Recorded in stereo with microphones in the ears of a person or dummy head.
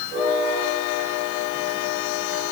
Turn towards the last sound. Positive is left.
No sound to turn to.